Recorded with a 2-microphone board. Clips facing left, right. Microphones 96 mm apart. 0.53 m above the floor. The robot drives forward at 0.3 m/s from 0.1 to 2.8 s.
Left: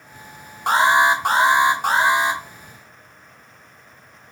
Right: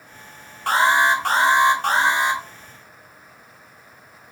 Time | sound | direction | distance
0.7 | an alarm | 20° left (ahead or behind) | 0.7 m